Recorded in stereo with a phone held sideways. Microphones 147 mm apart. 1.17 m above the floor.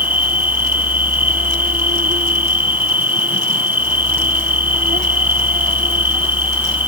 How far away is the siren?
No siren in this recording.